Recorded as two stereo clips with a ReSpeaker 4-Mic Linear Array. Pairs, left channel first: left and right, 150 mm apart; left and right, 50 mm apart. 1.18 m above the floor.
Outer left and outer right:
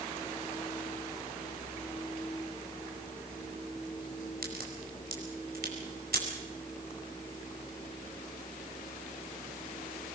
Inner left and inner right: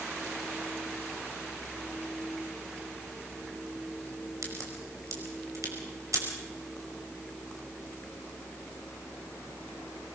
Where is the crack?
75° right (ahead or behind), 5 m.